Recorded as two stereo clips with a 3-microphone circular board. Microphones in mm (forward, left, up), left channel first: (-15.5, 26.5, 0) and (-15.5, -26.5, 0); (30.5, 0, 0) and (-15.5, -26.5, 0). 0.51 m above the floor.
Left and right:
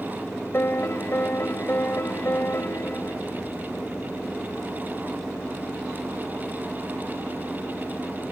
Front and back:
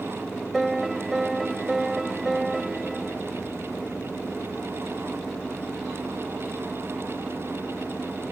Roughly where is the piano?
Behind left.